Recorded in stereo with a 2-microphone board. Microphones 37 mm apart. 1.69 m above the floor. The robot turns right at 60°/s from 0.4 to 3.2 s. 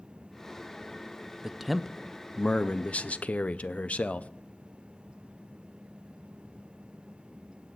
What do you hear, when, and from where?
1.4 s a man speaking: 15° right, 0.5 m; by 4.3 s 90° left, 0.5 m